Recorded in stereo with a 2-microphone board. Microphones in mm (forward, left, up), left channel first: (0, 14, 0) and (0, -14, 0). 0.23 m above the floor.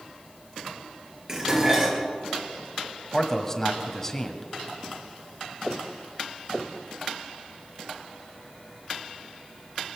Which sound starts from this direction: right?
Dishes clattering, at 1.3 s.